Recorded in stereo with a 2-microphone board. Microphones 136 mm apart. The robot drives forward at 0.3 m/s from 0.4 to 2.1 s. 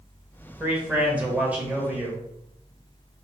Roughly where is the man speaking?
Centre.